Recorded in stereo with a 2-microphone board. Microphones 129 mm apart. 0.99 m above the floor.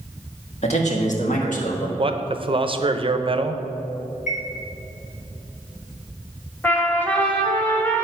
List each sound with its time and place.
0.6 s a man speaking: 55° left (ahead or behind), 1.7 m; by 1.9 s 75° left (ahead or behind), 1.6 m
2.0 s a man speaking: 40° right (ahead or behind), 0.5 m
4.3 s a chime: 65° left (ahead or behind), 2 m
6.6 s a trumpet: 15° left (ahead or behind), 1.4 m